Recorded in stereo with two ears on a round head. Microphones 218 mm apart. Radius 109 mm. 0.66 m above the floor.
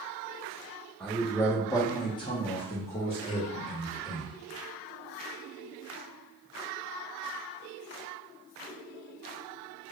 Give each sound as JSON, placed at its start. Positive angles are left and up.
{"t": 1.0, "sound": "a man speaking", "side_deg": 5, "distance_m": 0.8}